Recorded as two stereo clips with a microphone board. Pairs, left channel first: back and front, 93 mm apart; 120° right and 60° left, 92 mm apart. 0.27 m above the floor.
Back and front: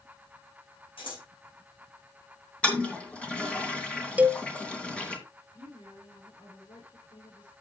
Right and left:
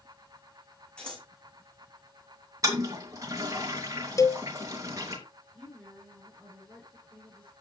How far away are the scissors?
About 7 m.